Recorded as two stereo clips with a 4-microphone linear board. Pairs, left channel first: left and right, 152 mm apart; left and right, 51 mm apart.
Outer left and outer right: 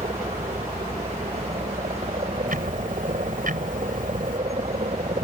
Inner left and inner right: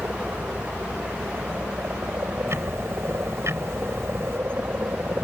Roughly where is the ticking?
Right.